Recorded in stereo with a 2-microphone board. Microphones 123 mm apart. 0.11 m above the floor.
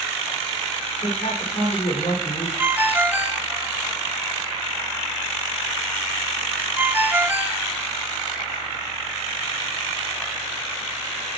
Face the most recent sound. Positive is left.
turn(degrees=-15)  # may be behind; listen again after turning